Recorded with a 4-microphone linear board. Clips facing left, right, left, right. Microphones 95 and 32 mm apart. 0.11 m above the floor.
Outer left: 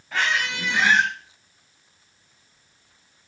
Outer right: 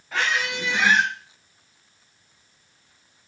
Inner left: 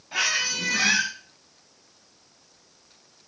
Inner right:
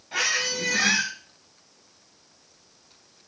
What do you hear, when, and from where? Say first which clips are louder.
0.1 s a squeak: even, inner left 1 dB; 10° right (ahead or behind), 1.5 m